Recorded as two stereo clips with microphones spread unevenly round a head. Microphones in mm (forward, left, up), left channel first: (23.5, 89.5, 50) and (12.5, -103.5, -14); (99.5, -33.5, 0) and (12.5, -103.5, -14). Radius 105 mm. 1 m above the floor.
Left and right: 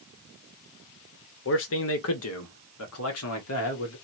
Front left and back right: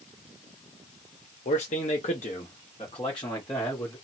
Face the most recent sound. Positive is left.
turn(degrees=115)